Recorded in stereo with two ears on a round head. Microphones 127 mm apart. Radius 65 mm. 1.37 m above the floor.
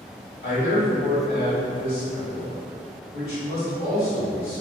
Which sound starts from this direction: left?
A man speaking, at 0.4 s.